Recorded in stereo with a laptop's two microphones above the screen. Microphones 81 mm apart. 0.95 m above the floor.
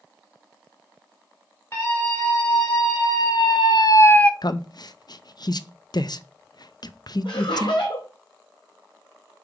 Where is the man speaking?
55° left (ahead or behind), 0.5 m.